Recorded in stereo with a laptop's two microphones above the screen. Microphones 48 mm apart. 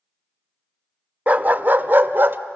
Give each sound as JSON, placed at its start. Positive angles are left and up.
{"t": 1.3, "sound": "a dog barking", "side_deg": -30, "distance_m": 0.7}